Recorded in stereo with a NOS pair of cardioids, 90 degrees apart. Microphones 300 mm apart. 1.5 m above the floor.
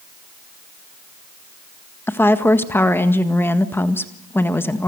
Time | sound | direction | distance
2.1 | a woman speaking | 5° left | 1.7 m